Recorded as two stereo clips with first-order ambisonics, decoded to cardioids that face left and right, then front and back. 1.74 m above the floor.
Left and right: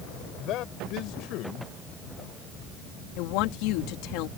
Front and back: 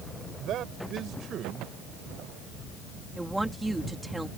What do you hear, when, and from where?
0.4 s a man speaking: 130° left; by 2.7 s 120° left
3.2 s a woman speaking: 95° left